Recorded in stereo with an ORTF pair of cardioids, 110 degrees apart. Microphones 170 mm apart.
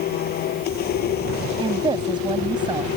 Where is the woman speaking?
25° right.